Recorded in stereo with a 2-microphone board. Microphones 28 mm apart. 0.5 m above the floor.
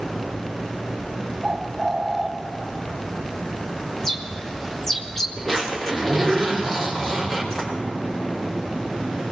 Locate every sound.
1.4 s a bird: 10° right (ahead or behind), 1.0 m
4.0 s a bird: 20° left (ahead or behind), 1.3 m
5.4 s a zipper: 20° left (ahead or behind), 5.5 m